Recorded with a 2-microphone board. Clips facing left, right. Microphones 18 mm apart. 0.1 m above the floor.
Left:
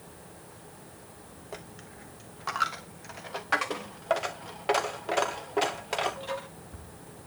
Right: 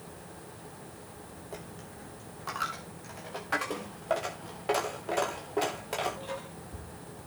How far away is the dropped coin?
About 1.7 m.